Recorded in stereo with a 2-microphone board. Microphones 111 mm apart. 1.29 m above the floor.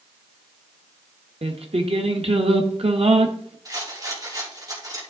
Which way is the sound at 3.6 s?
35° right (ahead or behind).